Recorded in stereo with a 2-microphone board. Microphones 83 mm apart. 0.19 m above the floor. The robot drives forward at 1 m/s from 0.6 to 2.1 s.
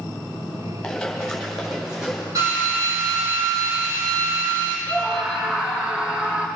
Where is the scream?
20° right (ahead or behind), 3 m.